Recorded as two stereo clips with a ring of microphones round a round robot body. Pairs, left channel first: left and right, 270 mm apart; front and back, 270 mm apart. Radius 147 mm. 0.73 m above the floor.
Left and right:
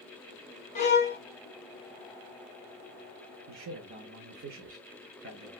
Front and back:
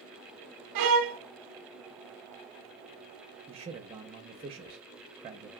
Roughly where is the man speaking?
Behind right.